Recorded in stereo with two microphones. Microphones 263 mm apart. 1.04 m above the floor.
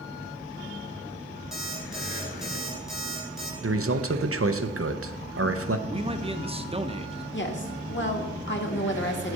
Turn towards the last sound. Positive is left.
turn(degrees=45)  # may be behind; listen again after turning